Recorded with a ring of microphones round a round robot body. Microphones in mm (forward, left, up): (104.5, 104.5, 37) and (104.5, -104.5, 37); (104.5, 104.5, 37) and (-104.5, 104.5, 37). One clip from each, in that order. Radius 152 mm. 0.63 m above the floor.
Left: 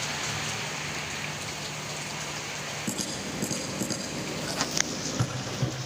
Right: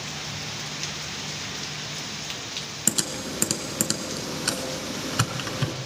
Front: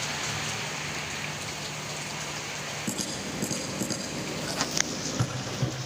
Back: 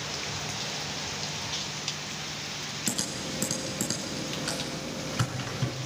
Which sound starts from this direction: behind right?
Typing on a keyboard, at 2.9 s.